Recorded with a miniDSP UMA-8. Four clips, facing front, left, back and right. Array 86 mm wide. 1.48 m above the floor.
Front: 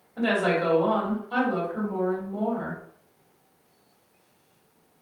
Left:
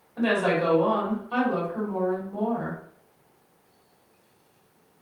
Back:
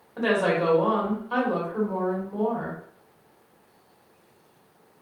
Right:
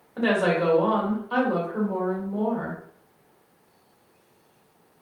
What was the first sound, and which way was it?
A woman speaking, 120° right.